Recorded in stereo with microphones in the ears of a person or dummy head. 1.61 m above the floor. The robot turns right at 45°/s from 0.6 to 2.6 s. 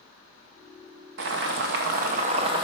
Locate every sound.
1.2 s boiling: 100° right, 0.7 m; by 2.6 s 35° right, 0.7 m